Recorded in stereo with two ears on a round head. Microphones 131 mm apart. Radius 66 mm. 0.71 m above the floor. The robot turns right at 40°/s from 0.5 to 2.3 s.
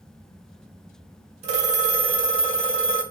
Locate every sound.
1.4 s a phone ringing: 85° right, 1.3 m; by 3.0 s 50° right, 1.3 m